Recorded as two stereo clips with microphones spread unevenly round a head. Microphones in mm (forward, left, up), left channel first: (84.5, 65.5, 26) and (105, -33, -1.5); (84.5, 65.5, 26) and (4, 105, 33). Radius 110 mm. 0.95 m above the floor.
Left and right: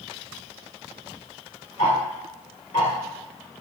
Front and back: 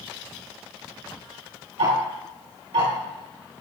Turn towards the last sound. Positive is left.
turn(degrees=160)